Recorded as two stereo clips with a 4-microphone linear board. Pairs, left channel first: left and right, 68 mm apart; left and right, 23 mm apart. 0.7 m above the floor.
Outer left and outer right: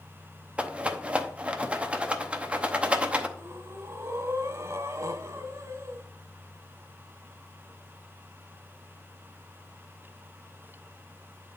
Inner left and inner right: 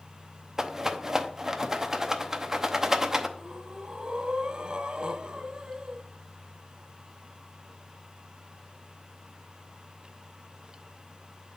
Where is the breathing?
45° right (ahead or behind), 0.7 m.